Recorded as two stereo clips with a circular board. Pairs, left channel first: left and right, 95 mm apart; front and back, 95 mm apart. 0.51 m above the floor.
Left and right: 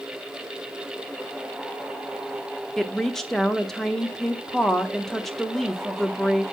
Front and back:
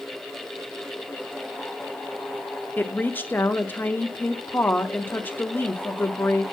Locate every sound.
2.8 s a woman speaking: 10° left, 0.7 m